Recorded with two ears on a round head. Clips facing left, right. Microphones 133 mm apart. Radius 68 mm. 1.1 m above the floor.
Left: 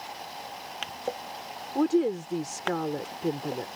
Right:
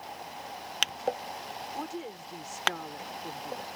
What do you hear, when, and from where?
1.8 s a woman speaking: 70° left (ahead or behind)